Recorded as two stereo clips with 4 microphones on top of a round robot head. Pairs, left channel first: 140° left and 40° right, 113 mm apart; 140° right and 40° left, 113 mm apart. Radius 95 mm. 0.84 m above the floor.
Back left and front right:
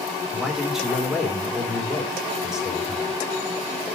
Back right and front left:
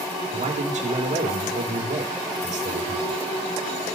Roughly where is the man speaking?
Ahead left.